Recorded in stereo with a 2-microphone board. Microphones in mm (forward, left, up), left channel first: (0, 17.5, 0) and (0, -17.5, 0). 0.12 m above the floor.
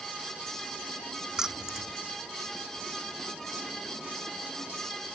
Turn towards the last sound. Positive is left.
turn(degrees=-10)  # may be behind; listen again after turning